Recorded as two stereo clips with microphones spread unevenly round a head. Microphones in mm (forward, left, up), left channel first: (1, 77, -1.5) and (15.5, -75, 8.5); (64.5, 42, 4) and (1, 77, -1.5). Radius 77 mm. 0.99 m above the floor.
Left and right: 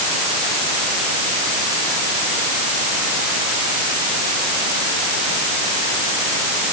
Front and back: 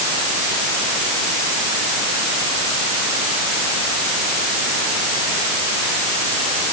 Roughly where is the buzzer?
No buzzer in this recording.